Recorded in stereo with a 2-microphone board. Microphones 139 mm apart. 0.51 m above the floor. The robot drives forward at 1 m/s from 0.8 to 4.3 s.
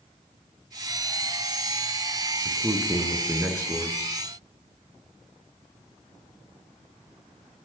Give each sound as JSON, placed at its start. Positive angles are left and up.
{"t": 2.5, "sound": "a man speaking", "side_deg": -20, "distance_m": 6.0}